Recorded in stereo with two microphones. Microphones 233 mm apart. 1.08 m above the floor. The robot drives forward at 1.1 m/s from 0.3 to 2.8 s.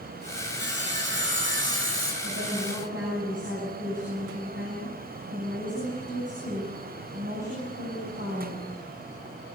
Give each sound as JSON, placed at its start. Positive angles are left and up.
{"t": 0.6, "sound": "sawing", "side_deg": -50, "distance_m": 7.0}
{"t": 2.2, "sound": "a woman speaking", "side_deg": -55, "distance_m": 10.0}